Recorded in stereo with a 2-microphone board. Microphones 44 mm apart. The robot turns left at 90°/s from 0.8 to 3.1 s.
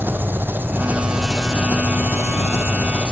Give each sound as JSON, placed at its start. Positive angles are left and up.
{"t": 0.0, "sound": "an engine running", "azimuth_deg": -130, "distance_m": 2.0}